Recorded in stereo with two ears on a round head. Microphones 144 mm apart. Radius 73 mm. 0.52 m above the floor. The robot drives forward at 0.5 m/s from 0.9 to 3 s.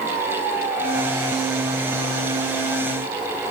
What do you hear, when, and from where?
Only background noise.